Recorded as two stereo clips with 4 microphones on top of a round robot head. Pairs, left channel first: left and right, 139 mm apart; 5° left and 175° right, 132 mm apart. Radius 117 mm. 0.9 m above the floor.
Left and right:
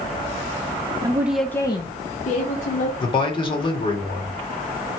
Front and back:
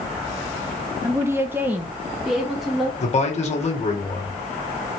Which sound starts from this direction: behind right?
A woman speaking, at 1.0 s.